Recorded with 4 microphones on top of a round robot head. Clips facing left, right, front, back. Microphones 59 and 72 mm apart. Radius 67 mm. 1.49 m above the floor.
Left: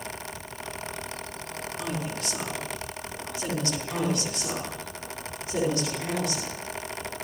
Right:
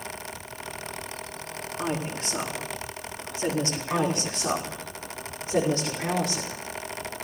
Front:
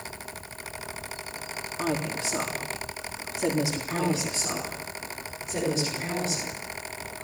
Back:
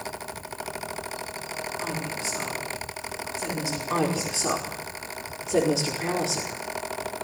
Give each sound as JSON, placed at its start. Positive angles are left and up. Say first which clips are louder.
{"t": 1.8, "sound": "a woman speaking", "louder": "right 3 dB, front 7 dB", "azimuth_deg": -25, "distance_m": 4.5}
{"t": 3.9, "sound": "a woman speaking", "louder": "right 4 dB, back 5 dB", "azimuth_deg": -155, "distance_m": 5.0}